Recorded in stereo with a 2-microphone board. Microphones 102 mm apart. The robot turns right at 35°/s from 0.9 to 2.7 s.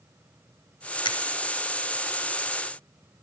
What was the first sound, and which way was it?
A finger snap, 50° left (ahead or behind).